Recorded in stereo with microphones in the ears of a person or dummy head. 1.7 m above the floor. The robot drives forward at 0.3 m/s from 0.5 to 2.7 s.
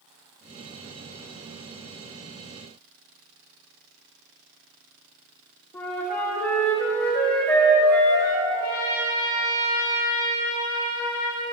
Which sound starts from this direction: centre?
A flute, at 5.7 s.